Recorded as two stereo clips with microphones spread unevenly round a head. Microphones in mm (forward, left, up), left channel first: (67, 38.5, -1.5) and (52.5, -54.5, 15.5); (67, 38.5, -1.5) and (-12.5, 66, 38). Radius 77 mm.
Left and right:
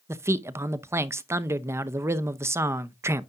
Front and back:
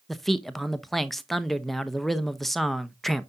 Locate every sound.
0.1 s a man speaking: 45° right, 0.6 m